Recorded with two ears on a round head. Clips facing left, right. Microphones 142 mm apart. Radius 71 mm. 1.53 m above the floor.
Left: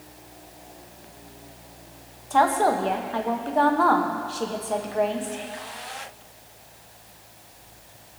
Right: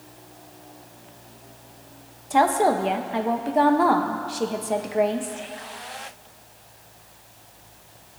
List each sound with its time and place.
2.3 s a woman speaking: 15° right (ahead or behind), 0.8 m